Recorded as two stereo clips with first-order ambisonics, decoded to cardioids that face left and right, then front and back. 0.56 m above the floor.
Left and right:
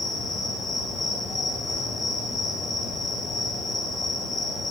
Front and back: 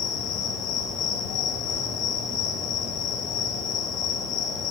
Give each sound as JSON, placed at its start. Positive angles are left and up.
{"t": 0.0, "sound": "an insect", "azimuth_deg": 20, "distance_m": 3.0}